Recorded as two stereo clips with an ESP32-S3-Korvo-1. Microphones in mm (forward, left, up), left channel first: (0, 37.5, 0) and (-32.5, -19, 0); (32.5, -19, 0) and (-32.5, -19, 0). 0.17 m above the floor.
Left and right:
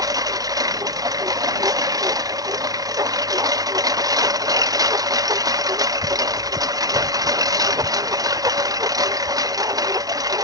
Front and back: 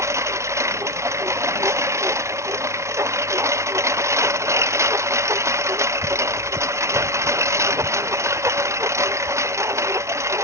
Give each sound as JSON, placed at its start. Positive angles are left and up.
{"t": 0.0, "sound": "a lawn mower", "azimuth_deg": -140}